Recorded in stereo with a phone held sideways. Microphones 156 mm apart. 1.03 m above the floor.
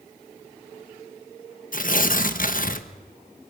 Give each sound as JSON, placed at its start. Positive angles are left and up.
{"t": 1.7, "sound": "tearing paper", "side_deg": 60, "distance_m": 1.2}